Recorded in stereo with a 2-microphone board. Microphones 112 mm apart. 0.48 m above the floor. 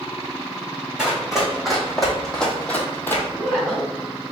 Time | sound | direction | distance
1.0 | running footsteps | 5° right (ahead or behind) | 1.9 m
3.3 | a woman speaking | 5° left (ahead or behind) | 2 m